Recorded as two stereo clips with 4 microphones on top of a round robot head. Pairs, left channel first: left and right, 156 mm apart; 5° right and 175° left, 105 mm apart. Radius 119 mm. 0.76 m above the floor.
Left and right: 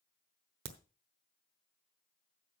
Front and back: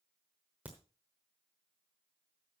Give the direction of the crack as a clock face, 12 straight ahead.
3 o'clock.